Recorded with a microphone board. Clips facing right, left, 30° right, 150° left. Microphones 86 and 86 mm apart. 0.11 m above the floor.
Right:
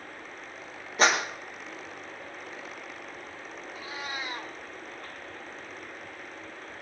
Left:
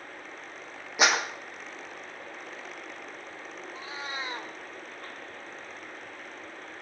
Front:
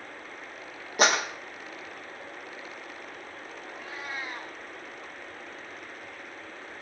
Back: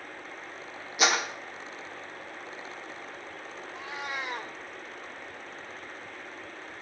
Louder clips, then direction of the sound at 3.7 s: Even, back 2 dB; 145° left.